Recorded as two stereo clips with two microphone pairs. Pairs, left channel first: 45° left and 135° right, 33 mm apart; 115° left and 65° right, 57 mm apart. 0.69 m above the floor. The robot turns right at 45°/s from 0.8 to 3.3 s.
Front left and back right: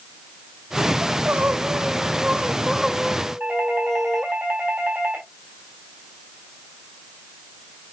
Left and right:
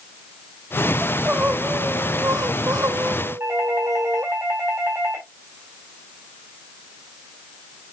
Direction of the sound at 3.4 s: 105° right.